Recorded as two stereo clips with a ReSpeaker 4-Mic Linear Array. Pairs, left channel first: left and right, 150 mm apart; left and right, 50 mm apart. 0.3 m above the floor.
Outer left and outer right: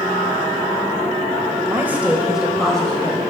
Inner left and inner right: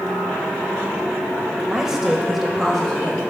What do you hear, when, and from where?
1.7 s a woman speaking: 15° right (ahead or behind), 1.0 m; by 3.3 s 10° left (ahead or behind), 1.4 m